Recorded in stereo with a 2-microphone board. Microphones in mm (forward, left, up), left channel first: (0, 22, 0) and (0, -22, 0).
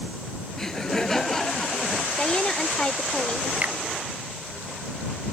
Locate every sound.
0.6 s laughter: 10° left (ahead or behind)
2.2 s a woman speaking: 20° left (ahead or behind)
3.6 s a finger snap: 35° right (ahead or behind)